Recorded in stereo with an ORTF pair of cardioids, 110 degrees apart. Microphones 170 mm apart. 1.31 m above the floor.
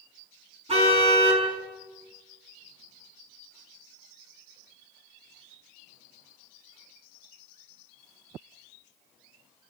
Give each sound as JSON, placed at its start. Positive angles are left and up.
{"t": 0.7, "sound": "a car horn", "azimuth_deg": -35, "distance_m": 6.0}